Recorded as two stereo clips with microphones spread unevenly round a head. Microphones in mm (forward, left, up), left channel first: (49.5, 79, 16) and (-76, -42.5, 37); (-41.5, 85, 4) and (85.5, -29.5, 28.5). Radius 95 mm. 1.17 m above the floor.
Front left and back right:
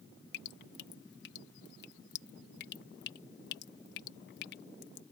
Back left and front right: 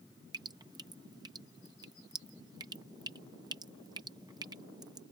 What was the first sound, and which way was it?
Dripping, 30° left.